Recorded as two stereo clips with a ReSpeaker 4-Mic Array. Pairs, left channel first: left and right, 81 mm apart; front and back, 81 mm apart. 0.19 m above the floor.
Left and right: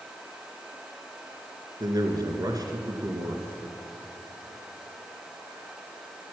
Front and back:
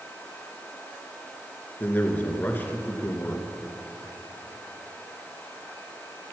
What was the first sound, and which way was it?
A man speaking, 65° right.